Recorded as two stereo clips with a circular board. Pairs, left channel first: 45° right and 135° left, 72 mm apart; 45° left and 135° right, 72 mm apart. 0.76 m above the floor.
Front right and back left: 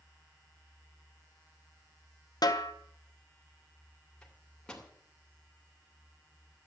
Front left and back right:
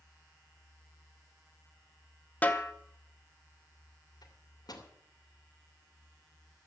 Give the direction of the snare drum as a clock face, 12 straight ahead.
1 o'clock.